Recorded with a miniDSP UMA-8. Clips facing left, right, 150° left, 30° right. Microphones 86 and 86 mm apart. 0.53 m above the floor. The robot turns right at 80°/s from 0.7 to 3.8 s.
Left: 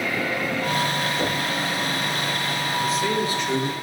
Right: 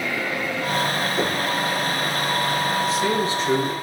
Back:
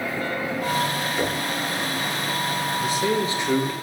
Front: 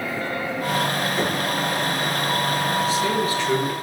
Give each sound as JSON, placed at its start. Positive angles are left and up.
{"t": 1.2, "sound": "knocking", "azimuth_deg": -90, "distance_m": 4.0}
{"t": 2.8, "sound": "a man speaking", "azimuth_deg": 170, "distance_m": 1.6}